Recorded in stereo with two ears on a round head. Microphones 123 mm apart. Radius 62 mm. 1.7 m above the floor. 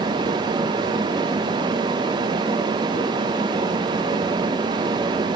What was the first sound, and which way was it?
Only background noise.